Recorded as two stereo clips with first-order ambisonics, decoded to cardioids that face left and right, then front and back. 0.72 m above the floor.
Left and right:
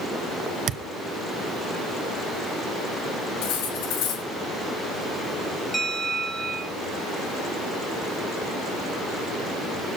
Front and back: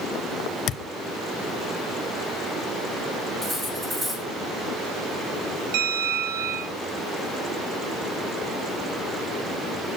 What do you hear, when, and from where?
0.7 s a thud: 45° right, 0.5 m
3.4 s cutlery clinking: 105° left, 4.5 m
5.7 s a bell: 175° left, 2.5 m